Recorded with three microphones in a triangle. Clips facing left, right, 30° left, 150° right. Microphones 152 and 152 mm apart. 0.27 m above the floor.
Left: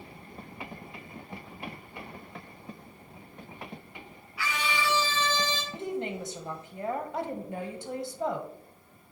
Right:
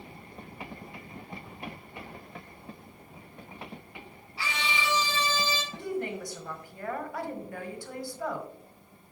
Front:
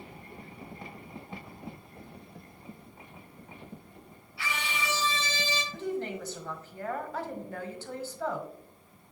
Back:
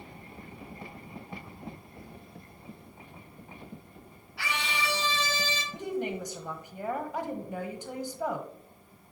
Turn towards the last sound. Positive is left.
turn(degrees=145)